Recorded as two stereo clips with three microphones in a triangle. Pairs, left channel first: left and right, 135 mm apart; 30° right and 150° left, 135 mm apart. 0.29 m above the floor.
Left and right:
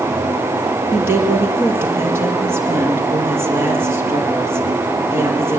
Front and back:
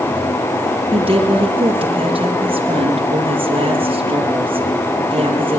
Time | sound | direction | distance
0.9 | a woman speaking | 160° right | 7 m